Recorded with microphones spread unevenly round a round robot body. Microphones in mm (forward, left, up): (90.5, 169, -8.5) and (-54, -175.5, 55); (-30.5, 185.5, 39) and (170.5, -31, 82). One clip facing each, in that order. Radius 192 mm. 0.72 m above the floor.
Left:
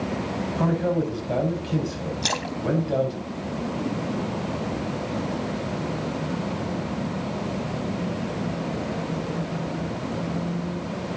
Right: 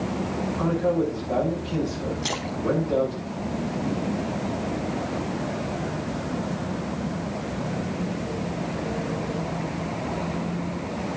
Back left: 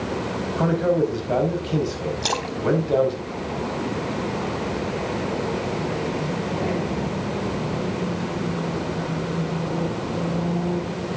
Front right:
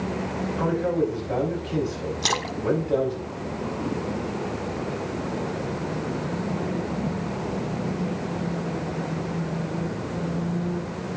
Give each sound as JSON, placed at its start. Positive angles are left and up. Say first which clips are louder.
{"t": 0.6, "sound": "a man speaking", "louder": "right 1 dB, back left 3 dB", "azimuth_deg": 105, "distance_m": 5.0}
{"t": 2.2, "sound": "a splash", "louder": "even, back left 1 dB", "azimuth_deg": 15, "distance_m": 1.5}